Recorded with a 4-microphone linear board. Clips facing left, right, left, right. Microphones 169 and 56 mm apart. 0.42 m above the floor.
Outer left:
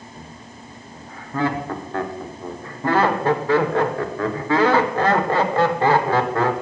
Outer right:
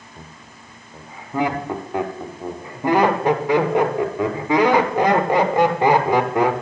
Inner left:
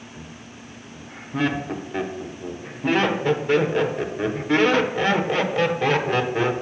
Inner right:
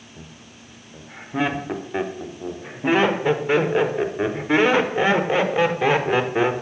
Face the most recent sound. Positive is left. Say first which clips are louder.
# outer left 3 dB, inner left 3 dB
turn(degrees=-15)  # may be behind; listen again after turning